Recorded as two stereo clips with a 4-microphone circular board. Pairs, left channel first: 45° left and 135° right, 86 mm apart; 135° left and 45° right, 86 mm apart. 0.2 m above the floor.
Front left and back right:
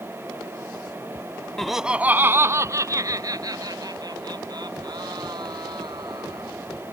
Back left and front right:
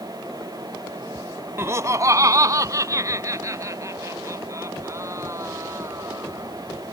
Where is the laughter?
35° right; by 6.5 s 100° right.